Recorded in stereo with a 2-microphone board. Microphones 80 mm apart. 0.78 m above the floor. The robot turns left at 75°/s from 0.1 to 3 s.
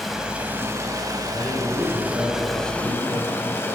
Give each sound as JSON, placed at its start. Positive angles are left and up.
{"t": 0.0, "sound": "running water", "azimuth_deg": -5, "distance_m": 0.8}
{"t": 1.3, "sound": "a man speaking", "azimuth_deg": 30, "distance_m": 4.0}